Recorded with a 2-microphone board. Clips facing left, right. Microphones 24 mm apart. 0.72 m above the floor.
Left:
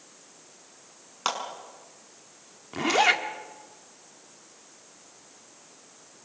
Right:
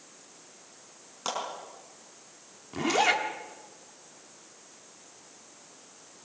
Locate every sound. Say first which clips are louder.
1.2 s a clap: left 4 dB; 40° left (ahead or behind), 5.5 m
2.7 s a zipper: left 3 dB; 15° left (ahead or behind), 1.8 m